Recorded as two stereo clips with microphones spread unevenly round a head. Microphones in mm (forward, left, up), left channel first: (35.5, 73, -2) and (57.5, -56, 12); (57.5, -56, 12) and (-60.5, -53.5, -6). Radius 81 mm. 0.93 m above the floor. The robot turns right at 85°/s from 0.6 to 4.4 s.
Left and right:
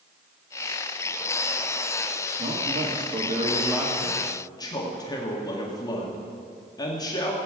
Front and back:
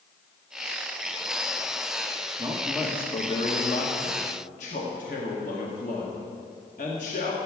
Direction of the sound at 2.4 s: 125° right.